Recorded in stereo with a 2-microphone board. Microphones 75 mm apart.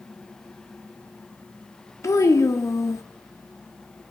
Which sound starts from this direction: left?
A child speaking, at 2.0 s.